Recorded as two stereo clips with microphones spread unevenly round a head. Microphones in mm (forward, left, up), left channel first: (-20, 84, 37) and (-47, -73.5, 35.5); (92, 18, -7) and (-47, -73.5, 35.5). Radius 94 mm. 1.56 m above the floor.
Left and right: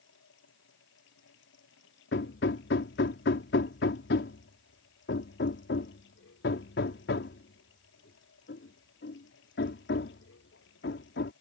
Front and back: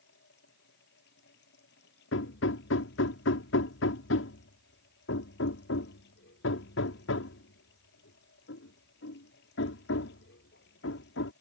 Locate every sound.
0.0 s running water: 65° left
2.1 s hammering: 50° left